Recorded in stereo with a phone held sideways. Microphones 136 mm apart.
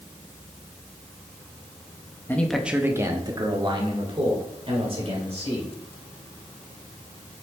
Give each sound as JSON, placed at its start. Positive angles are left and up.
{"t": 2.3, "sound": "a man speaking", "side_deg": 15, "distance_m": 1.0}